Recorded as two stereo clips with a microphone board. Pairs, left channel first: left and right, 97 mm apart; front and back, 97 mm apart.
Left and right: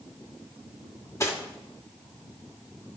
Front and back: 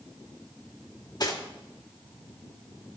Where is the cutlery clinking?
35° left, 1.6 m.